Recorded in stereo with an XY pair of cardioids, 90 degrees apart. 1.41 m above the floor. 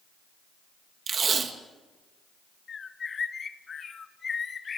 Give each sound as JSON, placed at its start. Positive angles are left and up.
{"t": 1.1, "sound": "tape being pulled", "azimuth_deg": -50, "distance_m": 1.9}
{"t": 2.7, "sound": "a bird", "azimuth_deg": 45, "distance_m": 1.2}